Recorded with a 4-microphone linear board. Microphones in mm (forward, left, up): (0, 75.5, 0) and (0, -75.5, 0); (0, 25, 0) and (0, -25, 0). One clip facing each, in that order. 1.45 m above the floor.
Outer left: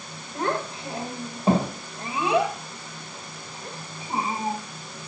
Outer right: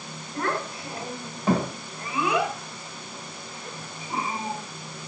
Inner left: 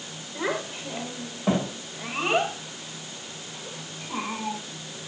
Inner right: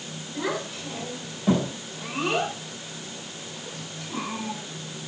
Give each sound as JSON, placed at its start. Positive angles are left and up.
{"t": 0.3, "sound": "a child speaking", "side_deg": 25, "distance_m": 4.0}